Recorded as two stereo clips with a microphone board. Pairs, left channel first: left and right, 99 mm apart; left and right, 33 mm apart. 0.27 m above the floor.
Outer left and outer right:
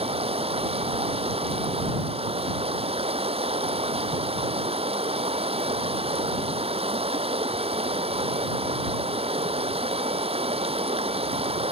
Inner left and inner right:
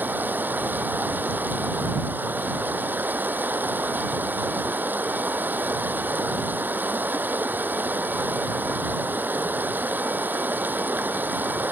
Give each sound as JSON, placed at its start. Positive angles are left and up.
{"t": 0.0, "sound": "running water", "side_deg": -75}